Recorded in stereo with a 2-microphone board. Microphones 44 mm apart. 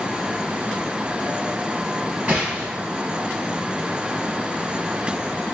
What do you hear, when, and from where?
2.3 s a gunshot: 25° right (ahead or behind), 1.4 m